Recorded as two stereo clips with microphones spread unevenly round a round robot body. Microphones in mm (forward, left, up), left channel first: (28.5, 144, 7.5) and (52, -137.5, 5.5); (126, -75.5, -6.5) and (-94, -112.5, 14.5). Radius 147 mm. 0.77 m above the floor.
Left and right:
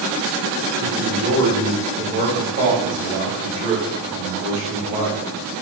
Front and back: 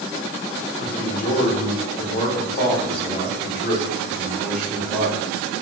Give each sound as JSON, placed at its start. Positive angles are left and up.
{"t": 0.8, "sound": "a man speaking", "azimuth_deg": -45, "distance_m": 1.5}